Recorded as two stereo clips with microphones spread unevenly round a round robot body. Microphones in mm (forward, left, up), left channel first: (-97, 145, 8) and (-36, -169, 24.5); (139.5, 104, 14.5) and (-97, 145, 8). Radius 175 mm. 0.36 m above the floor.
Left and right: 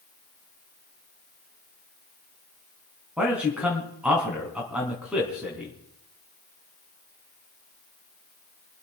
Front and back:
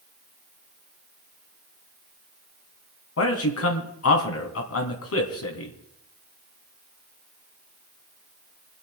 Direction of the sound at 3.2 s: 10° left.